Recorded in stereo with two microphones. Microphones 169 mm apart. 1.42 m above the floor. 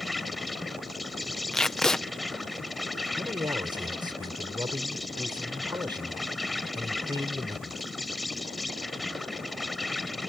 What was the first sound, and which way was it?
An insect, centre (ahead or behind).